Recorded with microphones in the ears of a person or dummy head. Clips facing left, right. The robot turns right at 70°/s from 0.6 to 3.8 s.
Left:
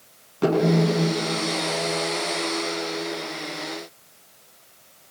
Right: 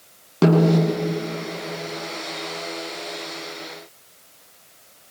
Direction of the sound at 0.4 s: 80° right.